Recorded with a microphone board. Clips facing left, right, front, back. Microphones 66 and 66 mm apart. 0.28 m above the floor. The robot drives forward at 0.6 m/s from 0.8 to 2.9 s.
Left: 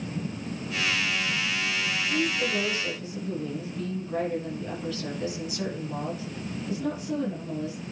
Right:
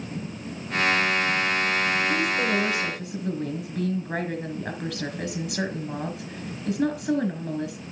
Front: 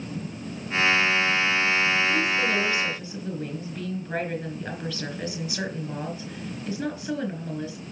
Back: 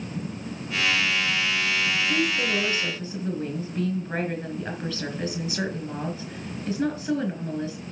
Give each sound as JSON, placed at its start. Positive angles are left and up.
{"t": 2.1, "sound": "a woman speaking", "azimuth_deg": -105, "distance_m": 3.5}